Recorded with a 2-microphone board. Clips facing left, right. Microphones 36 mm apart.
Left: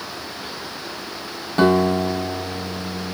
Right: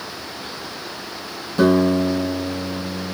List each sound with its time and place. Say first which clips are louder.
1.6 s a guitar: right 1 dB; 55° left (ahead or behind), 4.5 m